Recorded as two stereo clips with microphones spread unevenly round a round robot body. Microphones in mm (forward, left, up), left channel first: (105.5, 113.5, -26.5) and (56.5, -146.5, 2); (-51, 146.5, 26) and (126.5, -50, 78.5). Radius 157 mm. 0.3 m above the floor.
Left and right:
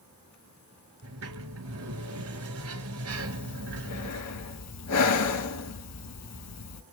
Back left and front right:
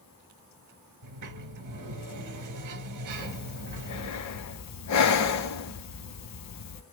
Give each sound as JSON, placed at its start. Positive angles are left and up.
{"t": 1.0, "sound": "a sliding door", "azimuth_deg": -70, "distance_m": 3.0}
{"t": 3.1, "sound": "breathing", "azimuth_deg": 120, "distance_m": 1.0}